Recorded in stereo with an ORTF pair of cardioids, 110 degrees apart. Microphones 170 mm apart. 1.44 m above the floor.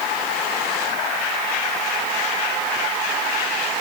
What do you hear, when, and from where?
Only background noise.